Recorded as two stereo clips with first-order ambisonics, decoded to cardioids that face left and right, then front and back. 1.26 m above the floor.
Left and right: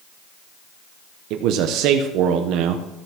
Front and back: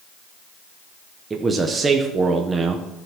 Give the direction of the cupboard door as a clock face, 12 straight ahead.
I don't hear a cupboard door.